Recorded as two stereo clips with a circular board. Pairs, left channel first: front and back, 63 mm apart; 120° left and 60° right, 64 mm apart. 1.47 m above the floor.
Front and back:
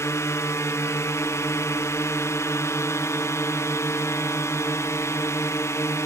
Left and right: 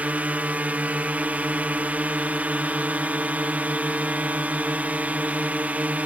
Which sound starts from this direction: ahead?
A drone, at 0.0 s.